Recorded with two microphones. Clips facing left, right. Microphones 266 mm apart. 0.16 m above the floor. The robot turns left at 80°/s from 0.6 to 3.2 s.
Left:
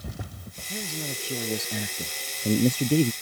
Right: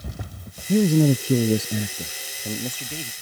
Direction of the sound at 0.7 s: 70° right.